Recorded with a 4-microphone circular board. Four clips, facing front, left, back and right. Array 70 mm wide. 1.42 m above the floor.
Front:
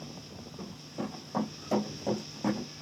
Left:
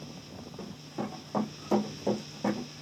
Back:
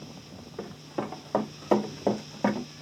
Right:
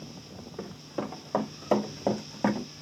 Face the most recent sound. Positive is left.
turn(degrees=-130)